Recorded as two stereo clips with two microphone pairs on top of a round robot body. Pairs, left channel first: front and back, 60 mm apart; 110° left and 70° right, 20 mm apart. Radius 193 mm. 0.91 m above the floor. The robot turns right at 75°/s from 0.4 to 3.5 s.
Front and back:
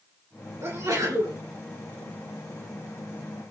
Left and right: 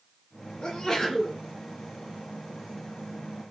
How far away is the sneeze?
About 2 m.